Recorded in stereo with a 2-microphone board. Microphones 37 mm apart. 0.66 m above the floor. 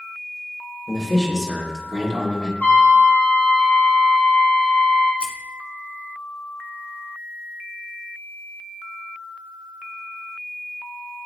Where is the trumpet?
45° left (ahead or behind), 3 m.